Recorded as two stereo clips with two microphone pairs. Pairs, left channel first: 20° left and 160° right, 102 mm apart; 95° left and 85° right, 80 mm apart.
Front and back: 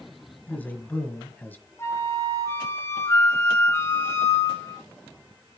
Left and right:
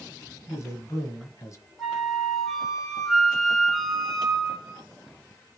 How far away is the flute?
About 1.7 m.